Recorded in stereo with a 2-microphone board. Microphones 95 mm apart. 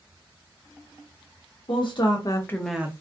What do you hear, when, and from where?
1.7 s a woman speaking: 60° left (ahead or behind), 1.1 m; by 2.9 s 25° right (ahead or behind), 0.5 m